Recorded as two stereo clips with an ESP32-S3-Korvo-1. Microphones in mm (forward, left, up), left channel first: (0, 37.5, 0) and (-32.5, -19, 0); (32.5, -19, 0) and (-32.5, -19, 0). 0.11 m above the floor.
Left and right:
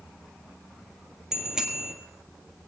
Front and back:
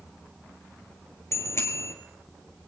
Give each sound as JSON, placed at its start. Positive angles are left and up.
{"t": 1.3, "sound": "a bicycle bell", "azimuth_deg": -40, "distance_m": 2.0}